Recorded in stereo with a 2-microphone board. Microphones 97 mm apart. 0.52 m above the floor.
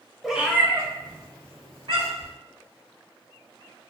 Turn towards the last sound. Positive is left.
turn(degrees=-65)  # may be behind; listen again after turning